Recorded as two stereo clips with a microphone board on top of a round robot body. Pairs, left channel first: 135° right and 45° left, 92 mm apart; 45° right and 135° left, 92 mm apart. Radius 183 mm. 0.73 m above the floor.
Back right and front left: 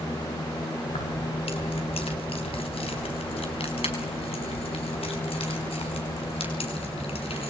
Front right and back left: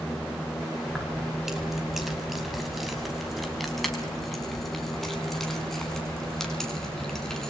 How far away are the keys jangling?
About 4.5 m.